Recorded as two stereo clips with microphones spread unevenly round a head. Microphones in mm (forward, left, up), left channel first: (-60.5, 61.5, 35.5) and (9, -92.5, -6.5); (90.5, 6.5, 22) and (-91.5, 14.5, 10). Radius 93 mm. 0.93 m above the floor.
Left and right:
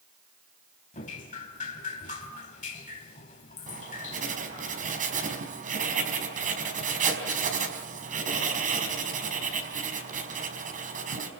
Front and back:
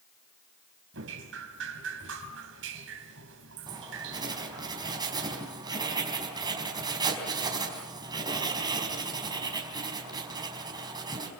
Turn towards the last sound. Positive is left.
turn(degrees=-110)